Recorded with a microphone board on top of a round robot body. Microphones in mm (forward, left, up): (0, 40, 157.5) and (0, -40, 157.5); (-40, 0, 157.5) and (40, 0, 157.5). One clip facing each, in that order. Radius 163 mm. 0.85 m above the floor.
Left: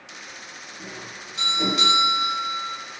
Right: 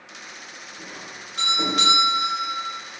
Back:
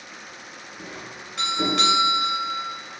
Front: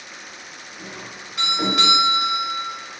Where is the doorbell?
75° right, 1.8 m.